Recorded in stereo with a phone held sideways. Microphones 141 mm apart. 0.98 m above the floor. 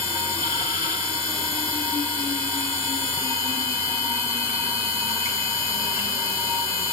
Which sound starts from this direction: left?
A machine running, at 0.0 s.